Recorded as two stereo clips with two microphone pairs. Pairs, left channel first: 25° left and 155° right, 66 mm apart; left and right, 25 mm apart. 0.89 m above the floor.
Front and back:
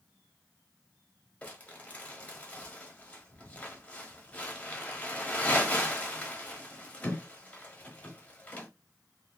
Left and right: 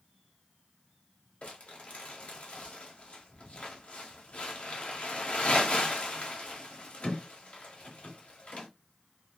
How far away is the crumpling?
About 1.0 m.